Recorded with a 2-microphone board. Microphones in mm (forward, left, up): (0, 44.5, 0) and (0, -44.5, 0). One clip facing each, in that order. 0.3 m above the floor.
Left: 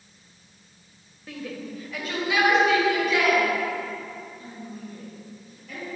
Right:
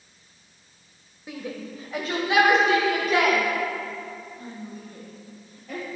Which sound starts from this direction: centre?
A shout, at 1.3 s.